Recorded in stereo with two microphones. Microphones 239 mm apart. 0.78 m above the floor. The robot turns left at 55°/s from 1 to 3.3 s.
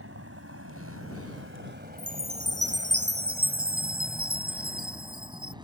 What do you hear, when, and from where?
0.0 s a vehicle: 65° right (ahead or behind); by 5.6 s 20° right (ahead or behind)
2.0 s a chime: 45° right; by 5.5 s 115° right